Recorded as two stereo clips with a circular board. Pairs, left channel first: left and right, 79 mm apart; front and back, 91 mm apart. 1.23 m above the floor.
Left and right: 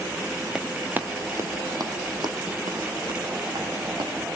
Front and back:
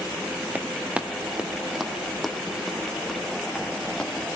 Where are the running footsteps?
170° right, 1.2 m; by 4.1 s 85° right, 4 m.